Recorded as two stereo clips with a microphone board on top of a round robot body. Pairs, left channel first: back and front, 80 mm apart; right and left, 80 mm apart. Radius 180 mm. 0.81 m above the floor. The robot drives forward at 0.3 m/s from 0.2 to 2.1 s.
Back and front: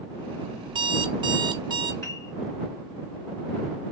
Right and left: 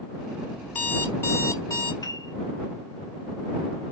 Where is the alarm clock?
20° right, 0.8 m; by 1.9 s 40° right, 0.5 m.